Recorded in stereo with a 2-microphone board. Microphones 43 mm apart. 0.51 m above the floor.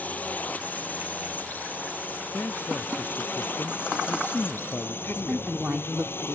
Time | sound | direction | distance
0.0 | a drone | 35° left (ahead or behind) | ?
2.3 | a man speaking | 50° left (ahead or behind) | ?
5.0 | a woman speaking | 30° right (ahead or behind) | ?